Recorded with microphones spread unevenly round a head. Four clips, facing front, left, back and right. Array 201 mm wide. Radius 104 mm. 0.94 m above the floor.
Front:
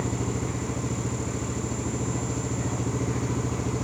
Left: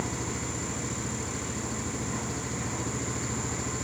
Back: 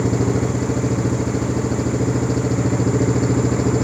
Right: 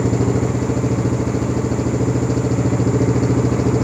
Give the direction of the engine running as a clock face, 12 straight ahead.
4 o'clock.